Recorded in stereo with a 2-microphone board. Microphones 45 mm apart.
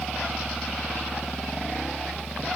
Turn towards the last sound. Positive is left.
No sound to turn to.